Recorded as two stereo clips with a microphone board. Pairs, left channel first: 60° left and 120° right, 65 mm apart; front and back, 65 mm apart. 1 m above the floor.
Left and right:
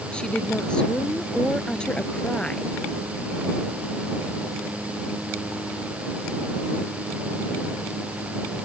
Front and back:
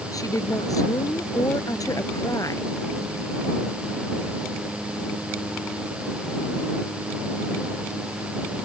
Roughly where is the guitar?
No guitar in this recording.